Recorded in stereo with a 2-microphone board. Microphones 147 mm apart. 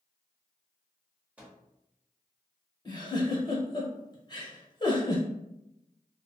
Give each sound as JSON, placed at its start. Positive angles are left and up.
{"t": 1.4, "sound": "a microwave", "side_deg": -10, "distance_m": 0.9}
{"t": 2.9, "sound": "a giggle", "side_deg": 30, "distance_m": 1.0}